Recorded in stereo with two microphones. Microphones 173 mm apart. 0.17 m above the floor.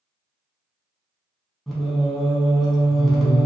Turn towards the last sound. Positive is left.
turn(degrees=0)  # may be behind; listen again after turning